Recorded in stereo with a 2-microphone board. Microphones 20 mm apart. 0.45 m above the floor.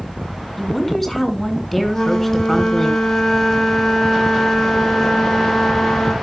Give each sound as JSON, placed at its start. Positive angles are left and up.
{"t": 0.6, "sound": "a woman speaking", "side_deg": 5, "distance_m": 2.5}
{"t": 1.9, "sound": "a flute", "side_deg": 20, "distance_m": 2.0}